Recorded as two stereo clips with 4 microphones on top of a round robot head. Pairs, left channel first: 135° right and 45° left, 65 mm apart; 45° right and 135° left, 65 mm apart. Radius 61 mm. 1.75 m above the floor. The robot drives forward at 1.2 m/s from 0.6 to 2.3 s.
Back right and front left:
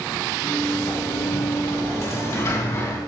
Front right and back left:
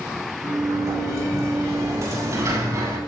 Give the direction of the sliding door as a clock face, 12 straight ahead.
6 o'clock.